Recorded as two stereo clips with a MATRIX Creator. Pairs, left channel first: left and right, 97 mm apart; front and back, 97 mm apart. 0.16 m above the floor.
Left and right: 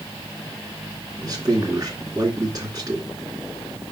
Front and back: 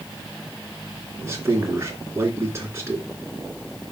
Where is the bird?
I don't hear a bird.